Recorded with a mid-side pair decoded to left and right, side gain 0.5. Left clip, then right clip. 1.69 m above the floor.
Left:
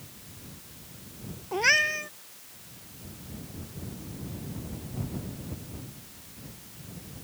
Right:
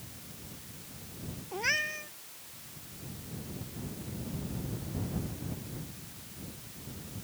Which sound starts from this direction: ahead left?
A cat meowing, at 1.5 s.